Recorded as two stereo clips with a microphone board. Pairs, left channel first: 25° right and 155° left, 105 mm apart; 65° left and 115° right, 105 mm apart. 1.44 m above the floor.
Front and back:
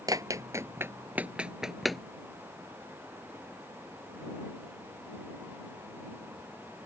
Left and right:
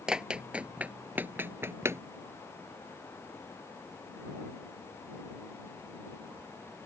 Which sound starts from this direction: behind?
Running footsteps, at 0.1 s.